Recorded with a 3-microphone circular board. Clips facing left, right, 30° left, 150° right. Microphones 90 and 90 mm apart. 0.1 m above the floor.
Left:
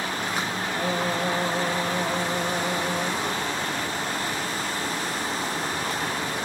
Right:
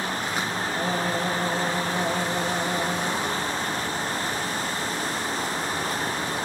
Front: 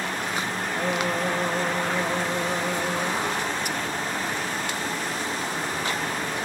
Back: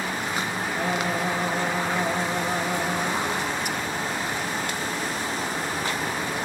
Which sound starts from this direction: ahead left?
Singing, at 0.8 s.